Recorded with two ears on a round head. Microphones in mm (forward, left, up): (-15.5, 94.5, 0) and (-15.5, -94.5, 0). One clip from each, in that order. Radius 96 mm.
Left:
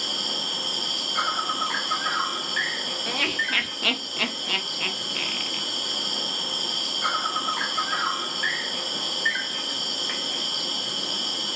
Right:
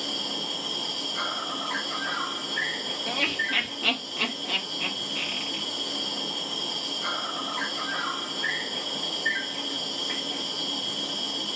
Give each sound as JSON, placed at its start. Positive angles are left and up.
{"t": 0.0, "sound": "an insect", "side_deg": 45, "distance_m": 0.8}
{"t": 3.1, "sound": "laughter", "side_deg": 15, "distance_m": 0.5}